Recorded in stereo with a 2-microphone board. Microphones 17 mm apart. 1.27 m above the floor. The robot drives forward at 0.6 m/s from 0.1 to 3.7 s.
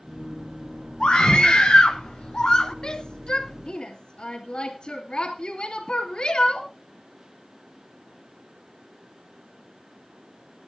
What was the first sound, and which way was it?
A scream, 70° left (ahead or behind).